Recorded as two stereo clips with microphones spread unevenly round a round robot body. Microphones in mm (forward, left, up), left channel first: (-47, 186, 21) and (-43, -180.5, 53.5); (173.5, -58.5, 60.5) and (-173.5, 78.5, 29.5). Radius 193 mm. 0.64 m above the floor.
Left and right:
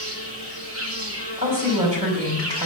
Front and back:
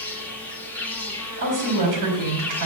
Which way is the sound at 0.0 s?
110° right.